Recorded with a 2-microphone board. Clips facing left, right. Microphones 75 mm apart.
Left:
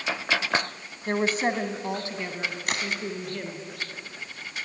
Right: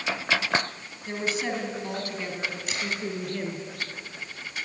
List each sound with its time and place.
1.1 s a woman speaking: 55° left (ahead or behind), 2.5 m; by 3.6 s 5° right (ahead or behind), 4 m
2.7 s a crack: 60° left (ahead or behind), 3 m